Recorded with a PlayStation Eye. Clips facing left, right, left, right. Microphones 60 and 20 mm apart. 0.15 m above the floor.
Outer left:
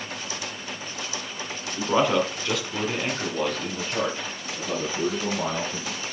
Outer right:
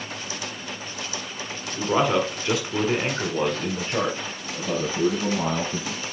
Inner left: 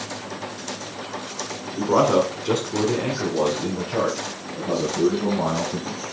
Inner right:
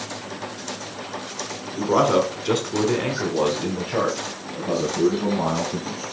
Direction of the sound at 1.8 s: 5° left (ahead or behind).